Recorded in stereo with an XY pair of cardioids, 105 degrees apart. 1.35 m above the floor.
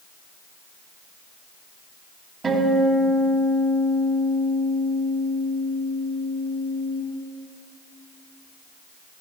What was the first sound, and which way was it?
A guitar, 35° right.